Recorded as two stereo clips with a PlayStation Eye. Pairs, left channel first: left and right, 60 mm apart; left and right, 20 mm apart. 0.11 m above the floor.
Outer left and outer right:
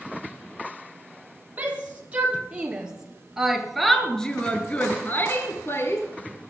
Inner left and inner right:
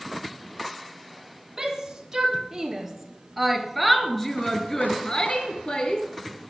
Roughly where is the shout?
Right.